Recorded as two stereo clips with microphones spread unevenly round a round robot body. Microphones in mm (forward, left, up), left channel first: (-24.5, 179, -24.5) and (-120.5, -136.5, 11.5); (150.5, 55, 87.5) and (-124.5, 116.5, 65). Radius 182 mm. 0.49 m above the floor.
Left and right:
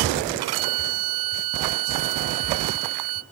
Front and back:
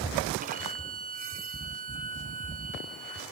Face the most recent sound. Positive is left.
turn(degrees=-120)